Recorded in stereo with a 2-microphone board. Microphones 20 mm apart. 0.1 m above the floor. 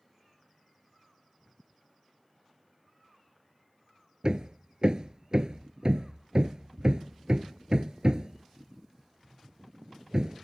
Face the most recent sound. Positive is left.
turn(degrees=-45)  # may be behind; listen again after turning